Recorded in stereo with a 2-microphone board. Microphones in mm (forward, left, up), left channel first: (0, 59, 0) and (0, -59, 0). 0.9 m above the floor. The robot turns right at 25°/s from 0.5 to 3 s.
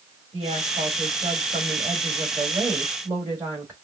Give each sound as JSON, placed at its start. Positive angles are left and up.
{"t": 0.3, "sound": "a woman speaking", "azimuth_deg": -90, "distance_m": 1.8}